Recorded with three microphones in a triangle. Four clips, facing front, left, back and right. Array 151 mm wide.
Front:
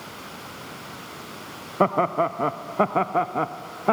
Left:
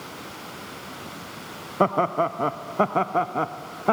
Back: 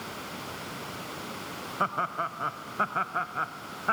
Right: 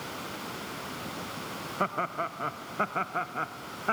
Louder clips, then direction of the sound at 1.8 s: Left 10 dB, front 9 dB; 35° left.